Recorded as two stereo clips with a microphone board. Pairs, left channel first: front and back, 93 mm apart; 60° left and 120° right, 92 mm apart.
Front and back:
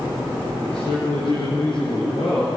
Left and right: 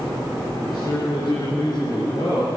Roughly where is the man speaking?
Ahead.